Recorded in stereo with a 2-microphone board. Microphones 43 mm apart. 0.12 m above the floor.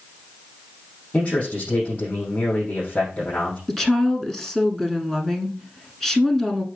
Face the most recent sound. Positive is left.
turn(degrees=10)  # may be behind; listen again after turning